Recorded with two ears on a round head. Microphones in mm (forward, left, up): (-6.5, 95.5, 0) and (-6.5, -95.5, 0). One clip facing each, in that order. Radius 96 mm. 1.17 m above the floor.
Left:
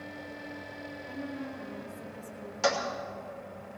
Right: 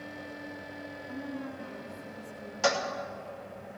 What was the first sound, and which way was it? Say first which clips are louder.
A woman speaking: even; 85° left.